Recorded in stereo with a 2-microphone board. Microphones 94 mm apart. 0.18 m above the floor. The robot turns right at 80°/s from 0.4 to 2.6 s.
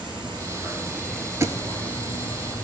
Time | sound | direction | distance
0.0 | an insect | 60° right | 3.5 m
1.4 | a thud | 30° right (ahead or behind) | 0.6 m